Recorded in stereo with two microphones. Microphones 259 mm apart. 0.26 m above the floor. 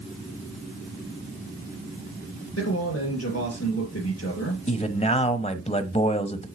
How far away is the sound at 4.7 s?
About 1.0 m.